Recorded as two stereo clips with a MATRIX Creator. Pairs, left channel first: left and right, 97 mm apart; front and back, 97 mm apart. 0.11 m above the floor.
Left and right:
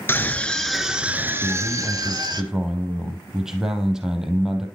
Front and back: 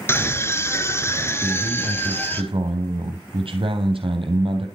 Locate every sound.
0.1 s a scream: 40° left, 1.9 m; by 2.4 s 65° right, 2.5 m
1.4 s a man speaking: 175° right, 3 m